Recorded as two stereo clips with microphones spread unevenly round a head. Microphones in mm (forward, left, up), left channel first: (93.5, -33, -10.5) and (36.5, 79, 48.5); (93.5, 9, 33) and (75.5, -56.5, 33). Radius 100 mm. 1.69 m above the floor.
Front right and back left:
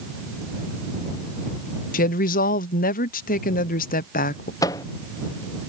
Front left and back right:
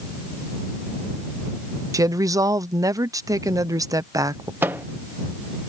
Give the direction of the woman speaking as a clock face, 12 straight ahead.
2 o'clock.